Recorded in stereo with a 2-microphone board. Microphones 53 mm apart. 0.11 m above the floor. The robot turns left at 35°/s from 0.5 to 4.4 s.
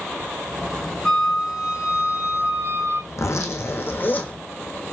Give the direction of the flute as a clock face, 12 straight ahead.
12 o'clock.